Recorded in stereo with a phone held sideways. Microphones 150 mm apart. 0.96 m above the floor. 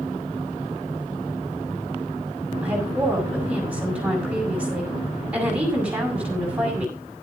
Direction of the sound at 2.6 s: 10° right (ahead or behind).